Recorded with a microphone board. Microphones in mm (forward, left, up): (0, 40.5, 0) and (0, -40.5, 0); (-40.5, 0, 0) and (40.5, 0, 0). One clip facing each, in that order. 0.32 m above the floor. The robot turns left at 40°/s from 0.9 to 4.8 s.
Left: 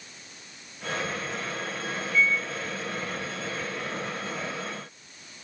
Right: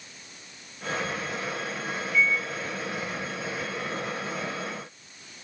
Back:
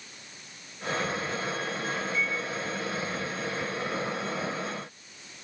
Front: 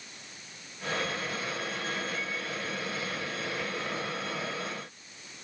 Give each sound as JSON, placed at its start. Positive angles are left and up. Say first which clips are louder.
{"t": 2.1, "sound": "a microwave", "louder": "even, back 5 dB", "azimuth_deg": 10, "distance_m": 1.6}